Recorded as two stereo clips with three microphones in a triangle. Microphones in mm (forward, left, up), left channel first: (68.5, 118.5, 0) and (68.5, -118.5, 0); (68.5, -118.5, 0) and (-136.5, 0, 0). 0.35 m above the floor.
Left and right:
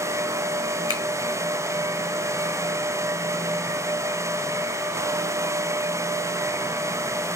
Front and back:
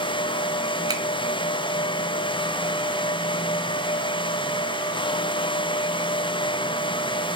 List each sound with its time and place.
0.9 s a finger snap: 75° left, 3 m